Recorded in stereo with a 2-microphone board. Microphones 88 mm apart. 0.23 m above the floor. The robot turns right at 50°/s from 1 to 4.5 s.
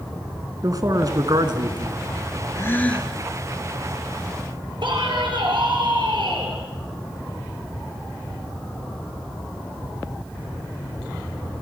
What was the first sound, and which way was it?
A man speaking, 130° right.